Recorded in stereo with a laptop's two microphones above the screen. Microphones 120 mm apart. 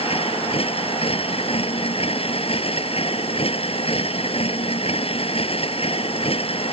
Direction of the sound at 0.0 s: 55° left (ahead or behind).